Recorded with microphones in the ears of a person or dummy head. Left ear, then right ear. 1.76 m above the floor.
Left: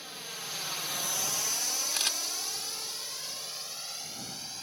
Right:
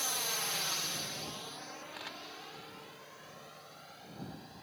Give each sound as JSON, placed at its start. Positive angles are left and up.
{"t": 0.0, "sound": "a drone", "side_deg": -35}
{"t": 1.9, "sound": "a camera shutter", "side_deg": 80}